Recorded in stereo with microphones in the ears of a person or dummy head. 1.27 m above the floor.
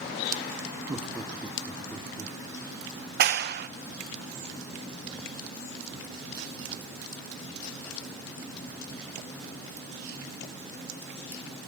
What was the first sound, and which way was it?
Laughter, 20° right (ahead or behind).